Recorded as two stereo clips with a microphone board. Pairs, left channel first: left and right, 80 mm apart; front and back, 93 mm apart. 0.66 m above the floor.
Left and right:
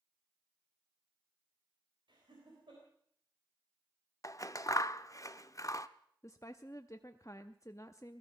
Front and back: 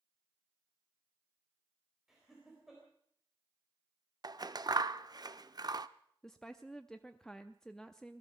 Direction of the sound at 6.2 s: 80° left.